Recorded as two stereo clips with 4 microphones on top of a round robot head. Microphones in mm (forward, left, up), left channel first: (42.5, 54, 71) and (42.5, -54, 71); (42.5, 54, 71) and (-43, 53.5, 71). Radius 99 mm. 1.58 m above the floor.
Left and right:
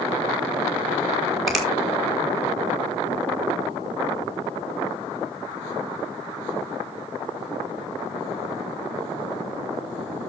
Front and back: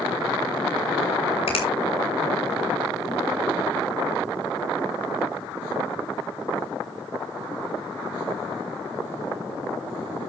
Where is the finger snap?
Straight ahead, 5 m.